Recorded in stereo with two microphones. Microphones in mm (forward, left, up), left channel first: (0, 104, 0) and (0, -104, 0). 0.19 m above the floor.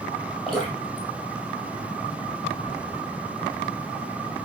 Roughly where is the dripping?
Centre.